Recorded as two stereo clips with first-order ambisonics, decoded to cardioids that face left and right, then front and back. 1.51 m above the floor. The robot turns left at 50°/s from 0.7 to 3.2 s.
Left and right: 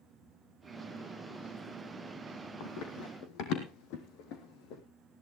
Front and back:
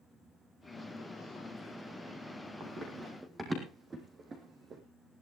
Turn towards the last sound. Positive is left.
turn(degrees=120)